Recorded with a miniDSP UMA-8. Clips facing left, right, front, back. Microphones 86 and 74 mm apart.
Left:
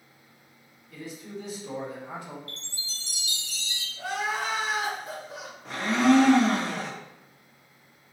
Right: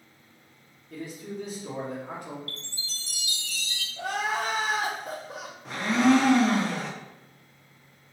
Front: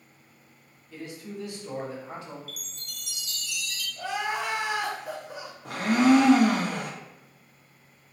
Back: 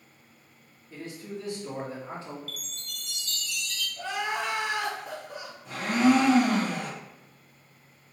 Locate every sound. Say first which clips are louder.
0.9 s a man speaking: right 2 dB, even; 125° right, 1.6 m
2.5 s a chime: right 1 dB, back 2 dB; 65° left, 0.5 m
4.0 s crying: right 1 dB, front 1 dB; 80° right, 0.9 m
5.7 s a blender: even, front 2 dB; straight ahead, 0.8 m